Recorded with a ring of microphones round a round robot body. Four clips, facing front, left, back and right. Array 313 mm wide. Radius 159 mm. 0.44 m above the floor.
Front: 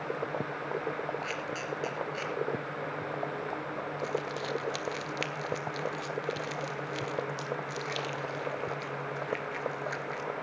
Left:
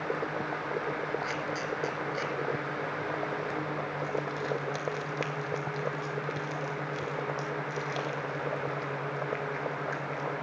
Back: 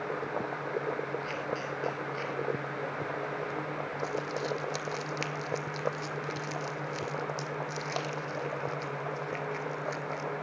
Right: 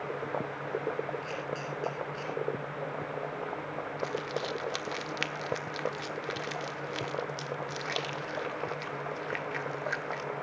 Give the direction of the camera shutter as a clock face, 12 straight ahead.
10 o'clock.